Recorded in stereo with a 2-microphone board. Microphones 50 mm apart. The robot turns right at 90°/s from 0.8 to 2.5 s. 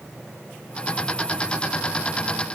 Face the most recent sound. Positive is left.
No sound to turn to.